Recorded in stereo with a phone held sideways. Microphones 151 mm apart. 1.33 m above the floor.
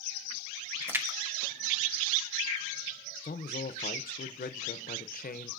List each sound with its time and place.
0.8 s a splash: 15° right (ahead or behind), 1.1 m
3.2 s a man speaking: 70° left (ahead or behind), 0.6 m